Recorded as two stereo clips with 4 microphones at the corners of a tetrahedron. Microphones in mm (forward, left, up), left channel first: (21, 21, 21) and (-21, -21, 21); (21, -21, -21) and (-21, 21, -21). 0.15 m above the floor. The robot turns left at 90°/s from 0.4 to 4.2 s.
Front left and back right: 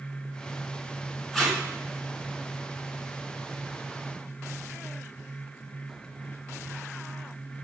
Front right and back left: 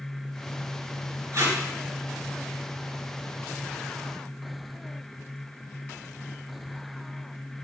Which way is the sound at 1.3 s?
130° left.